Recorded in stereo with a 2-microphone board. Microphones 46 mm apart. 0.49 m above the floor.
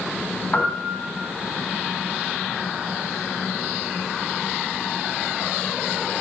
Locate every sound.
0.5 s a piano: 30° left (ahead or behind), 2.5 m